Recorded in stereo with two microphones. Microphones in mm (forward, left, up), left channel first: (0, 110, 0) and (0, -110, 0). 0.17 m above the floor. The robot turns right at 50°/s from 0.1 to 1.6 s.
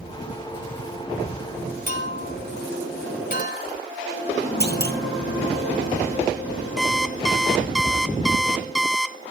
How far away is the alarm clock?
About 0.5 m.